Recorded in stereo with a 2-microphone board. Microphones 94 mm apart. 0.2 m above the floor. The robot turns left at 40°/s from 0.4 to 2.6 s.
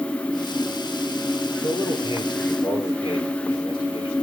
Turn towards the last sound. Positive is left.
turn(degrees=60)